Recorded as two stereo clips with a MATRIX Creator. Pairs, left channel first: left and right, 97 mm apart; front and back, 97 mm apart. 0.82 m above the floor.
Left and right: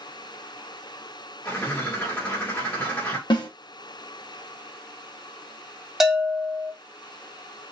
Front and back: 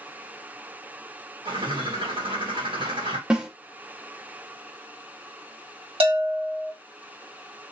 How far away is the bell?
About 1.3 m.